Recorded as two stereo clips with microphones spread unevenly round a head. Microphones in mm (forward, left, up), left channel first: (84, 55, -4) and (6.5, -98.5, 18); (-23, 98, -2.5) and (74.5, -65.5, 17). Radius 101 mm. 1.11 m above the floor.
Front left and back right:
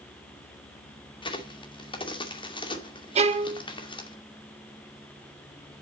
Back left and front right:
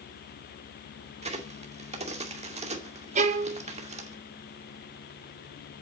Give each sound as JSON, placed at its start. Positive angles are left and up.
{"t": 1.2, "sound": "a crack", "azimuth_deg": 0, "distance_m": 2.5}
{"t": 3.1, "sound": "a violin", "azimuth_deg": -90, "distance_m": 1.0}